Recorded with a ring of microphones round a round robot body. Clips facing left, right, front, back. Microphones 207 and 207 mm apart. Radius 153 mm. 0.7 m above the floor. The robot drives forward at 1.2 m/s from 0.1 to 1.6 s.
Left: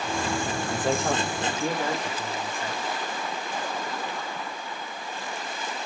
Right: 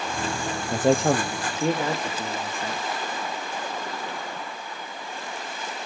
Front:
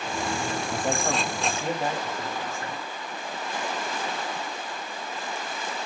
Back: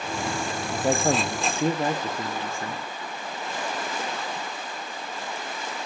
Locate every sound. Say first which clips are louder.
0.7 s a man speaking: right 7 dB, back 6 dB; 85° right, 0.7 m; by 2.9 s 155° right, 1.2 m